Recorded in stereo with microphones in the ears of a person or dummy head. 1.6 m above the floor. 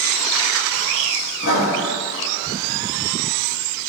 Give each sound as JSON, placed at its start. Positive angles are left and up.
{"t": 1.4, "sound": "writing", "side_deg": 75, "distance_m": 2.5}